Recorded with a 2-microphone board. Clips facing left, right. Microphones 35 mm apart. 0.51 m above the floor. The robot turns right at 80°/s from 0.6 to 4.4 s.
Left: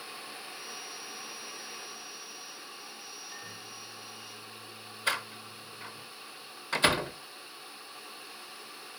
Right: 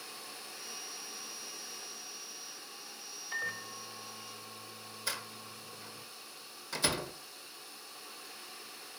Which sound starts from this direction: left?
A door slam, at 5.1 s.